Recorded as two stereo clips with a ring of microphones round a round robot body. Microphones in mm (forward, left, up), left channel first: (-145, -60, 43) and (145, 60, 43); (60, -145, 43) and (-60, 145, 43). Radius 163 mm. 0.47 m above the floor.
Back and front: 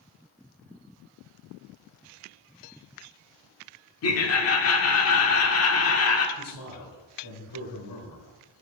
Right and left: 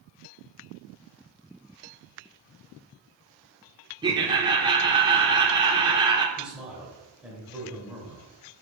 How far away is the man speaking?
About 1.7 m.